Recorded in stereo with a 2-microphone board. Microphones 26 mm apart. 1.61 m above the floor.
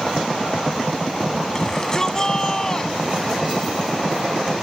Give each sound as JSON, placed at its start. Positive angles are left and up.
{"t": 1.6, "sound": "a shout", "side_deg": 25}